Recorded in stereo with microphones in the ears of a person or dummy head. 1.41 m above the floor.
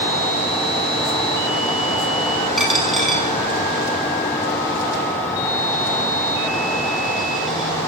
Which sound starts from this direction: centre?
A dropped coin, at 2.6 s.